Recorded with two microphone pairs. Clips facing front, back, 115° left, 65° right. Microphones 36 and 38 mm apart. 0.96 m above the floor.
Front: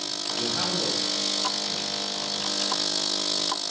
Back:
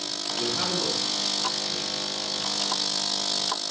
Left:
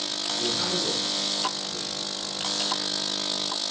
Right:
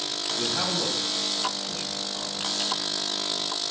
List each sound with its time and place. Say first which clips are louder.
0.4 s a man speaking: even, even; 70° right, 4 m